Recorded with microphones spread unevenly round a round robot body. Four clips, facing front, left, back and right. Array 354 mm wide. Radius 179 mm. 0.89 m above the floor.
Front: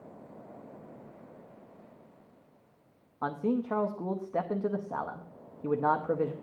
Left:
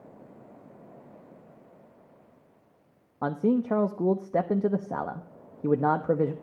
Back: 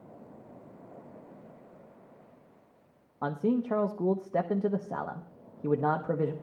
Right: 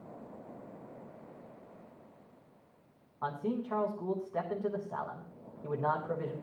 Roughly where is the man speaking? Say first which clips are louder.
Left 10 dB, back 2 dB; left.